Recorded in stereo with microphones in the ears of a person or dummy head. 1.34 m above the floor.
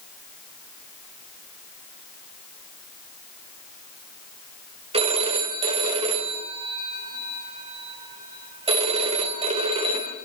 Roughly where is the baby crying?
No baby crying in this recording.